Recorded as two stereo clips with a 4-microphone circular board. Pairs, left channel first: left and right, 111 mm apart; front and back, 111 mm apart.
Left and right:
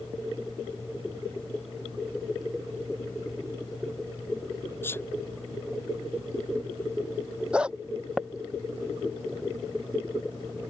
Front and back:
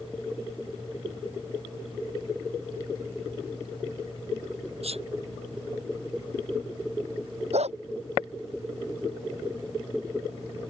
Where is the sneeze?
160° left.